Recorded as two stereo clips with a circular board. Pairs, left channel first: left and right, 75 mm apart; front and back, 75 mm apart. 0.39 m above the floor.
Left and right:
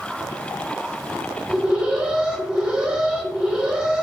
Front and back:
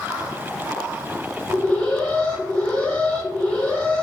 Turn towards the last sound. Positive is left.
turn(degrees=-35)